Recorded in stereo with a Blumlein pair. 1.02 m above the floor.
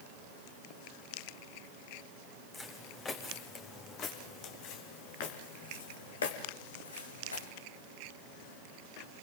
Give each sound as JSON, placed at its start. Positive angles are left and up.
{"t": 2.5, "sound": "footsteps", "azimuth_deg": 15, "distance_m": 3.5}